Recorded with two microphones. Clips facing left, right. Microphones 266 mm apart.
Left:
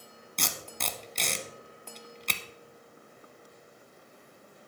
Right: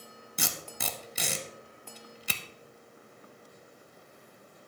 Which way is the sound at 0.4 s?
5° right (ahead or behind).